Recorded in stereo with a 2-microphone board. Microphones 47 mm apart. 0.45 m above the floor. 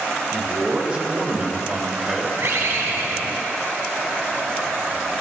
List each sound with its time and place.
0.3 s a man speaking: 35° right (ahead or behind), 2.5 m; by 2.3 s 15° right (ahead or behind), 2 m
2.4 s a bird: 70° right (ahead or behind), 1.7 m